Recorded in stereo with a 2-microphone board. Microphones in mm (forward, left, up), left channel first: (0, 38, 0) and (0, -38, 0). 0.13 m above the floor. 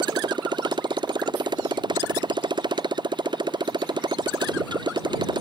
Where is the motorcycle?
85° right.